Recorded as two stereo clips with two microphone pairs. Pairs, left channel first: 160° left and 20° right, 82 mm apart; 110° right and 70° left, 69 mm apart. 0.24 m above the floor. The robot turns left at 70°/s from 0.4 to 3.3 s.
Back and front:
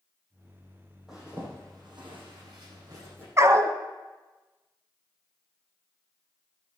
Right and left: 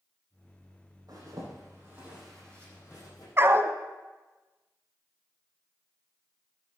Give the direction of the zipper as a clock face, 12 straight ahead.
10 o'clock.